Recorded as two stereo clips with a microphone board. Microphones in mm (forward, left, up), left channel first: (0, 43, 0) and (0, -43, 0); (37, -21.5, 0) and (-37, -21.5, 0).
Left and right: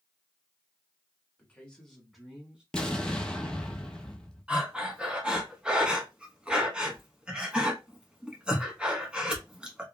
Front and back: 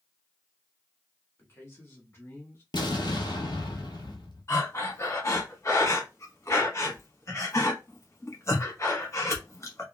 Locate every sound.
1.4 s a man speaking: 30° left, 1.4 m; by 2.6 s 20° right, 1.3 m
2.7 s an explosion: 10° left, 0.8 m
4.5 s breathing: 15° right, 1.0 m